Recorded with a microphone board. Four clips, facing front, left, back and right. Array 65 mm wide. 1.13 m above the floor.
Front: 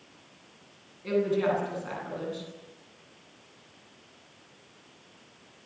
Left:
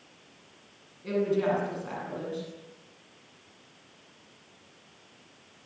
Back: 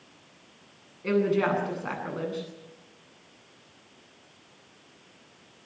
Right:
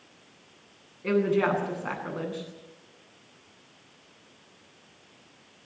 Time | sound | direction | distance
1.0 | a woman speaking | 125° right | 9.5 m